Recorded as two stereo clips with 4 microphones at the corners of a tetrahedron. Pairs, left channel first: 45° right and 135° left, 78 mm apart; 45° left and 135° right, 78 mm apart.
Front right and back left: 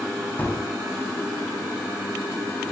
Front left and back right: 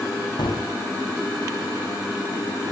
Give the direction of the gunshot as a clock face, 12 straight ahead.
11 o'clock.